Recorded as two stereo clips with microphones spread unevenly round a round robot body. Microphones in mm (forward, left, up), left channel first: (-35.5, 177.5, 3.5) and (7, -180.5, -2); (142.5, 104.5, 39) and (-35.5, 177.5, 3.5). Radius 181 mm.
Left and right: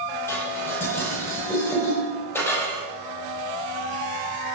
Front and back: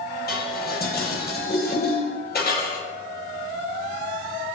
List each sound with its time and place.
0.3 s dishes clattering: 15° left, 10 m